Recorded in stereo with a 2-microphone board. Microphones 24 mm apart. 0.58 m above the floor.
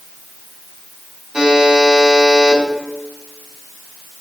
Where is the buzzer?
25° right (ahead or behind), 4 m.